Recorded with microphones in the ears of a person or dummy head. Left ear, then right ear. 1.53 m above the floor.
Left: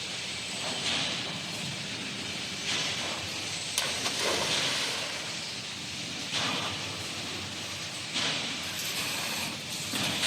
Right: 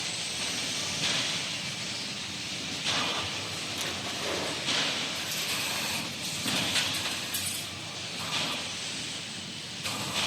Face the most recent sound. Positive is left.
turn(degrees=70)  # may be behind; listen again after turning